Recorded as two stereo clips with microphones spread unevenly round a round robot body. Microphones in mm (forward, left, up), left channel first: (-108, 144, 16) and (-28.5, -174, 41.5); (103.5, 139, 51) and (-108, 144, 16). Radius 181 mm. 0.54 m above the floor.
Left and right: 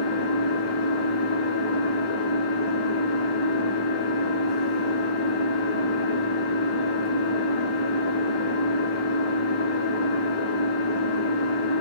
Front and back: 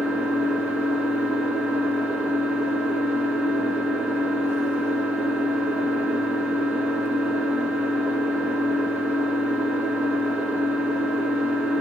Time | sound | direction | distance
0.0 | an engine running | 95° left | 4.5 m